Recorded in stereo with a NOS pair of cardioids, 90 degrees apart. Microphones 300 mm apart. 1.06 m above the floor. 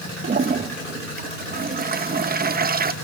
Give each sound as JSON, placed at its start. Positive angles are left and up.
{"t": 0.2, "sound": "a toilet flushing", "azimuth_deg": -30, "distance_m": 1.2}